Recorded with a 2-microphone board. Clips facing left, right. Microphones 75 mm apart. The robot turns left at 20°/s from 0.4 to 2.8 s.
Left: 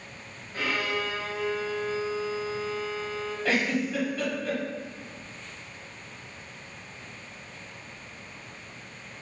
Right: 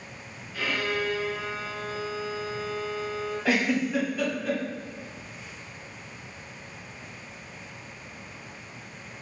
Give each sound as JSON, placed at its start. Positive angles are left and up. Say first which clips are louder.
{"t": 0.5, "sound": "a violin", "louder": "even", "azimuth_deg": 65, "distance_m": 1.2}
{"t": 3.5, "sound": "a giggle", "louder": "right 2 dB", "side_deg": -10, "distance_m": 1.2}